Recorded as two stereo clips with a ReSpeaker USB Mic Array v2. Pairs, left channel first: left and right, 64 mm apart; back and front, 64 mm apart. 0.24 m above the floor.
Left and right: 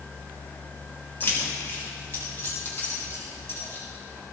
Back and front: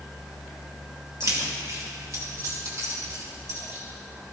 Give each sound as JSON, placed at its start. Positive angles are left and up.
{"t": 1.2, "sound": "keys jangling", "azimuth_deg": 35, "distance_m": 3.5}